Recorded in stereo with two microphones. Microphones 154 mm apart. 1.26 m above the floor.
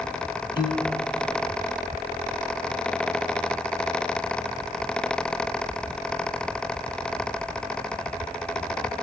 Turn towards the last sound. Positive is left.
turn(degrees=30)  # may be behind; listen again after turning